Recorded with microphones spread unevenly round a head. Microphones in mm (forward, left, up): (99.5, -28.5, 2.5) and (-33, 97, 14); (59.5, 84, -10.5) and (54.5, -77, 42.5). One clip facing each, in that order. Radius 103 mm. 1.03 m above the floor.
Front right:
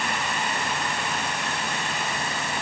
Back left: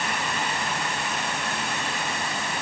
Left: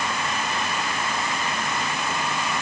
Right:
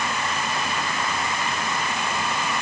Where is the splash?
No splash in this recording.